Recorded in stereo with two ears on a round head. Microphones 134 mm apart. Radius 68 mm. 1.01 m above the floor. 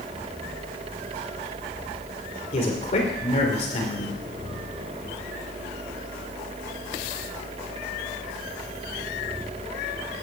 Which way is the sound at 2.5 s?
45° left (ahead or behind).